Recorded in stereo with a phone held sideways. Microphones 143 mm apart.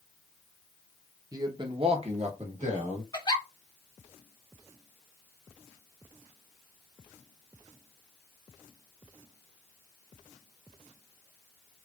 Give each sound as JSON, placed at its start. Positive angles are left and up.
{"t": 1.3, "sound": "a man speaking", "side_deg": -25, "distance_m": 0.8}
{"t": 3.1, "sound": "a giggle", "side_deg": 30, "distance_m": 2.0}